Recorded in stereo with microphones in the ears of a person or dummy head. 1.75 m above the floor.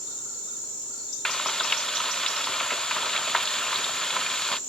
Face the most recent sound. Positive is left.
turn(degrees=5)  # may be behind; listen again after turning